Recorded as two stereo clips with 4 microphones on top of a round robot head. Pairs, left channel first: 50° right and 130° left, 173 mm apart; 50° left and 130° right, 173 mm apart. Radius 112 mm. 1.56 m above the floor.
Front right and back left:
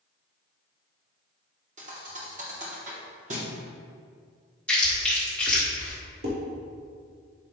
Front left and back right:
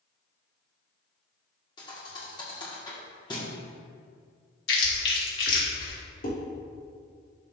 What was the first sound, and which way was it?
A thud, 105° left.